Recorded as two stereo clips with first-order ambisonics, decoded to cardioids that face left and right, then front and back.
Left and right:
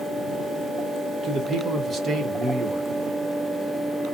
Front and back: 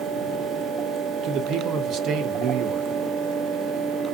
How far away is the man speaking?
About 0.5 m.